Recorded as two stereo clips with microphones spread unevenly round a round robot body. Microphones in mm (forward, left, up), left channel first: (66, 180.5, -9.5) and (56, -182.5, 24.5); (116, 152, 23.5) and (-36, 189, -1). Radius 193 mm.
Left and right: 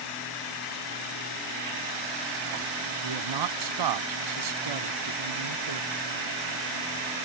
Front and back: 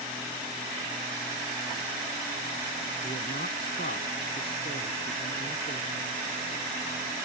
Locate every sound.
3.0 s a man speaking: 75° right